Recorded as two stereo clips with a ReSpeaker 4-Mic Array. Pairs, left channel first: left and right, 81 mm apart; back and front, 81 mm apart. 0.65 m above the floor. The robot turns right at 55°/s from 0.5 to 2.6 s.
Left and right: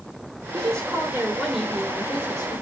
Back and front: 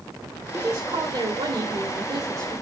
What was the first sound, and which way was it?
A woman speaking, 55° right.